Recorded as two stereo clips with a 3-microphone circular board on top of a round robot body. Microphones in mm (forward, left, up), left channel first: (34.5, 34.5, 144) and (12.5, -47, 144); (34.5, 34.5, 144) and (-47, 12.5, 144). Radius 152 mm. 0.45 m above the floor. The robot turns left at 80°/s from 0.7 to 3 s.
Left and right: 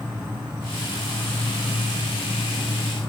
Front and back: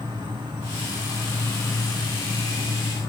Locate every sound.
0.0 s an insect: straight behind, 1.3 m; by 3.1 s 5° right, 1.3 m